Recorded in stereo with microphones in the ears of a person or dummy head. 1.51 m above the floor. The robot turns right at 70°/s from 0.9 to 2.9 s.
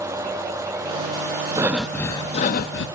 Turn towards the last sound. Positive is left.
turn(degrees=75)